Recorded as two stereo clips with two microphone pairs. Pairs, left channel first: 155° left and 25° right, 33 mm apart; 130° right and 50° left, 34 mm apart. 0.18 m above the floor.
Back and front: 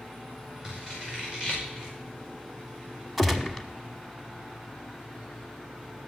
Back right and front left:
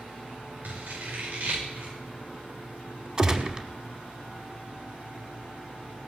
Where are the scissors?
50° left, 9.5 m.